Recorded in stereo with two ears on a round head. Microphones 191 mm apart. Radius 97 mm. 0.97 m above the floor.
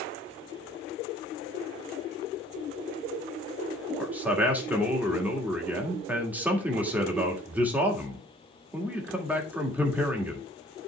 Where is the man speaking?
10° right (ahead or behind), 1.8 m.